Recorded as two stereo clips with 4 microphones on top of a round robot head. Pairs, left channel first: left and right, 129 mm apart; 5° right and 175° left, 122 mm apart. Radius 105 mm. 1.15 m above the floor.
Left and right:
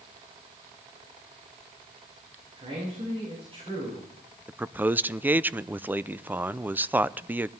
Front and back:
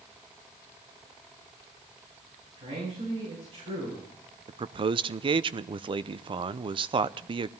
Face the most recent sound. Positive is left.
turn(degrees=-160)